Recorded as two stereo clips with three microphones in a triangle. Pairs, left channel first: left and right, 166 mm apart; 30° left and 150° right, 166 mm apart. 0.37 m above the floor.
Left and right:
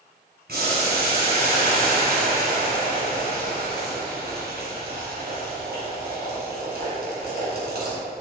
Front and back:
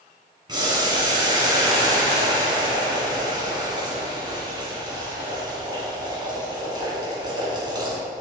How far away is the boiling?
About 2.5 m.